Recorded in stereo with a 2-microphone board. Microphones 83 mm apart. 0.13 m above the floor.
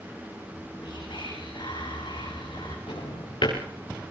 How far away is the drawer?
About 7.5 m.